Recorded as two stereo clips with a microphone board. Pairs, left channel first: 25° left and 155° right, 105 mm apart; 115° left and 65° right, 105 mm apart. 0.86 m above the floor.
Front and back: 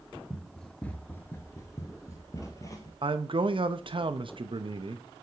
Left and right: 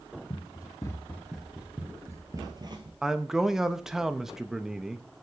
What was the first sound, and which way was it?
Running footsteps, 110° left.